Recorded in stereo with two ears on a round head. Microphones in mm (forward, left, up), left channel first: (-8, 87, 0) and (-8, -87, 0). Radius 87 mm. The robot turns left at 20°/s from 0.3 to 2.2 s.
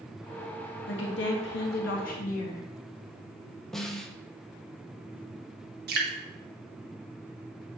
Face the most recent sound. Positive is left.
turn(degrees=-55)  # may be behind; listen again after turning